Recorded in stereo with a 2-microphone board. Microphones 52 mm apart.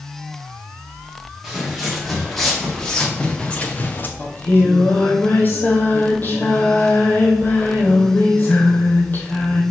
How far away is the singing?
About 2 m.